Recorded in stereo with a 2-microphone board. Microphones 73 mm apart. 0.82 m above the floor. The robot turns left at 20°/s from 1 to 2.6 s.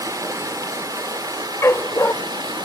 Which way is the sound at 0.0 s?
60° right.